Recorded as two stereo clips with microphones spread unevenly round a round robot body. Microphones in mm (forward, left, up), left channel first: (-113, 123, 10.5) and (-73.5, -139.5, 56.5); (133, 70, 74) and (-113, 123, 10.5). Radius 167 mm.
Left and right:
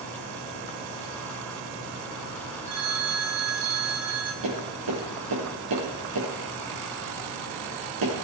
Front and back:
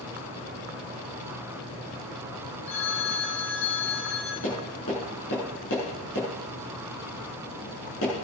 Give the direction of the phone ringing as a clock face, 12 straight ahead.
2 o'clock.